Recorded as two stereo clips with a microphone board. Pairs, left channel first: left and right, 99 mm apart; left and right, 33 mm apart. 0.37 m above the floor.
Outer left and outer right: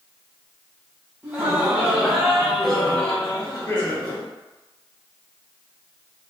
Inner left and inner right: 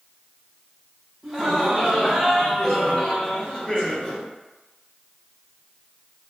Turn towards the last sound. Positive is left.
turn(degrees=25)  # may be behind; listen again after turning